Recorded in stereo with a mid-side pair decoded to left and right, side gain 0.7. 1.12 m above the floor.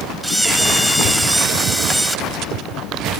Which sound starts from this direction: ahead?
A camera shutter, at 0.2 s.